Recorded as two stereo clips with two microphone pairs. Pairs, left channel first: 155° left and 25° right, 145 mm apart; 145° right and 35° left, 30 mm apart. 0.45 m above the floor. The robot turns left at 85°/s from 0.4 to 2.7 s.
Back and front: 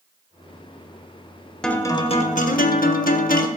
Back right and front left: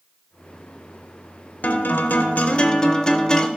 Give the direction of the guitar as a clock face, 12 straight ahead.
4 o'clock.